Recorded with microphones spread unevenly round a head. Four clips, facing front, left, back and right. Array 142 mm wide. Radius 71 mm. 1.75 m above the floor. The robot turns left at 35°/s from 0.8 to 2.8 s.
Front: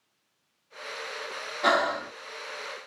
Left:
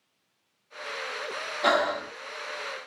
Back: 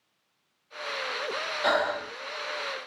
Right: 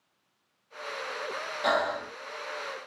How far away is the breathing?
About 1.3 m.